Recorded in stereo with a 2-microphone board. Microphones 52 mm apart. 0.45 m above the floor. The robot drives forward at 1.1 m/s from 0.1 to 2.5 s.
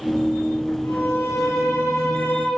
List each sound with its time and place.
0.8 s a violin: 80° left, 4 m; by 2.5 s 75° left (ahead or behind), 4.5 m